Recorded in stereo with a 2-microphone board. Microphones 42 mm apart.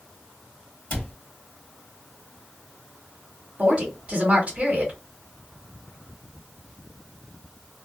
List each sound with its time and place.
0.9 s a cupboard door: 35° left (ahead or behind), 1.3 m
3.6 s a woman speaking: 35° right (ahead or behind), 1.3 m